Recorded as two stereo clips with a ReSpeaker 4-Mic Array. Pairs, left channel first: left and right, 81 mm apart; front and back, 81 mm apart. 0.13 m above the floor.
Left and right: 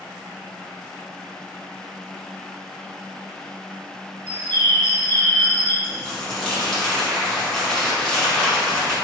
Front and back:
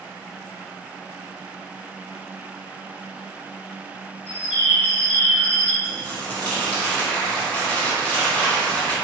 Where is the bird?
125° right, 1.1 m.